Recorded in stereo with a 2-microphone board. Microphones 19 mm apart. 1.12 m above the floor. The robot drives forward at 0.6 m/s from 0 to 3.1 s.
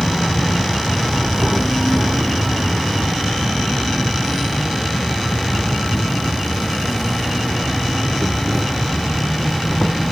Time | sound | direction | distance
0.0 | an insect | 20° left (ahead or behind) | ?